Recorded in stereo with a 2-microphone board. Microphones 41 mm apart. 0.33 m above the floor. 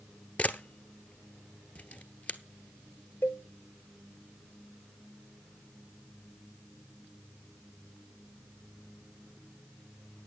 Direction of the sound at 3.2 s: 80° left.